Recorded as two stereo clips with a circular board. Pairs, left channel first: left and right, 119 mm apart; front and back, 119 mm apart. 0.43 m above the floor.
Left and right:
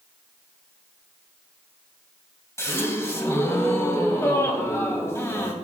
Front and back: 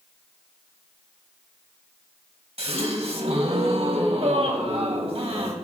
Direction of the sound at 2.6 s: 155° left.